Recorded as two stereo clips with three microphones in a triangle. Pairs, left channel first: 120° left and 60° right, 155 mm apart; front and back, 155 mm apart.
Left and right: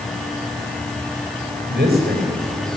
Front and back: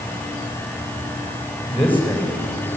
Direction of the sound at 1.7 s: 80° right.